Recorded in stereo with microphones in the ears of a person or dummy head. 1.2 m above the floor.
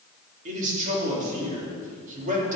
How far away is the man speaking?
About 3 m.